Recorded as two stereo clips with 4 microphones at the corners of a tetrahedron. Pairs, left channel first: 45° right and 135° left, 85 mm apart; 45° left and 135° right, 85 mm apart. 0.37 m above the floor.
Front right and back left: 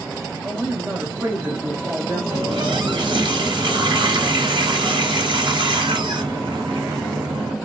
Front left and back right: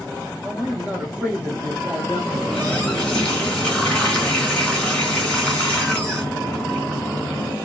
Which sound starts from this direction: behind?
A man speaking, at 0.4 s.